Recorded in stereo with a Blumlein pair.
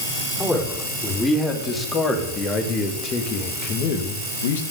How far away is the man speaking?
About 4.5 m.